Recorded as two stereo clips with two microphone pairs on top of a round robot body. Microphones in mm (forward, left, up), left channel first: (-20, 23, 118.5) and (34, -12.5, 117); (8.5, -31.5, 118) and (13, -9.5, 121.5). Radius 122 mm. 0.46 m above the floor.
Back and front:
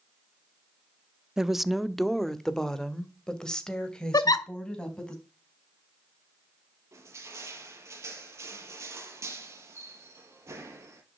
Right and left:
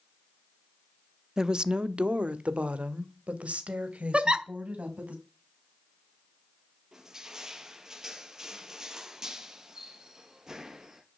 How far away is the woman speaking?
About 1.0 m.